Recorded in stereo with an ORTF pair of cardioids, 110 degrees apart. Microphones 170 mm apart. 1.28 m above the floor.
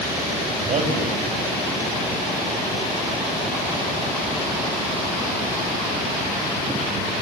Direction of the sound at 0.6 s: 45° right.